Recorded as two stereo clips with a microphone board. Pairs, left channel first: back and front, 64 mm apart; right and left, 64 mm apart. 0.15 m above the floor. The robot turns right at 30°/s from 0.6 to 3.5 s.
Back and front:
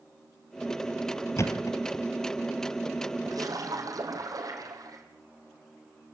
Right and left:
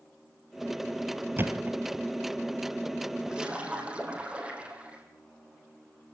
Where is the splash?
10° left, 4 m; by 5.0 s 20° left, 4 m.